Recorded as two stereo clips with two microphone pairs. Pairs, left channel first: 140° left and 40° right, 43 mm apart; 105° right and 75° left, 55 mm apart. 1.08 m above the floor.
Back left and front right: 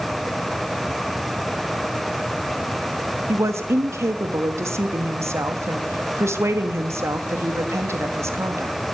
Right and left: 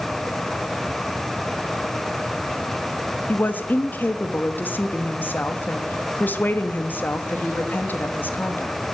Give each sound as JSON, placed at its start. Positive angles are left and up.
{"t": 3.3, "sound": "a woman speaking", "azimuth_deg": -45, "distance_m": 1.4}